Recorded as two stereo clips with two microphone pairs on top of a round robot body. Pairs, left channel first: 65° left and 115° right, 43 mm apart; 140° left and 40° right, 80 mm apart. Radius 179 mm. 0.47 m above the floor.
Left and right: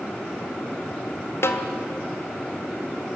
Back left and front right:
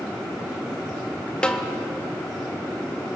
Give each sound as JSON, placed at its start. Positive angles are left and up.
{"t": 1.4, "sound": "a snare drum", "azimuth_deg": 65, "distance_m": 1.9}